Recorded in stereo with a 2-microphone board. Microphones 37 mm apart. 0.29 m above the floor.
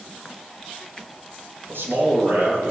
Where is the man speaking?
70° right (ahead or behind), 6.5 m.